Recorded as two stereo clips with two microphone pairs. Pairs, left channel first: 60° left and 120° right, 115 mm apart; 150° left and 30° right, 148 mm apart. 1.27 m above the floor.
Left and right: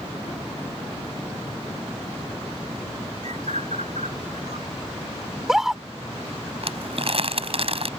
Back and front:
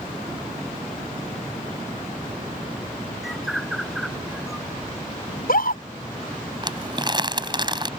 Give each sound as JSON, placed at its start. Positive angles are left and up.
{"t": 3.2, "sound": "a bird", "azimuth_deg": -120}
{"t": 5.3, "sound": "a scream", "azimuth_deg": 155}
{"t": 6.6, "sound": "crumpling", "azimuth_deg": -90}